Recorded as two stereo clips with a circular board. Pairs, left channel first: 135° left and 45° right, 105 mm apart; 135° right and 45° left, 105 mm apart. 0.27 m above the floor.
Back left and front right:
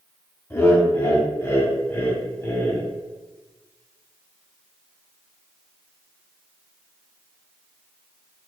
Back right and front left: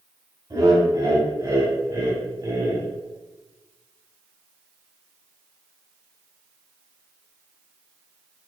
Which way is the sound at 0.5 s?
75° left.